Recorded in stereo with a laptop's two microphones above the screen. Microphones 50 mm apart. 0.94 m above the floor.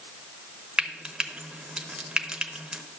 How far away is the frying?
About 0.7 m.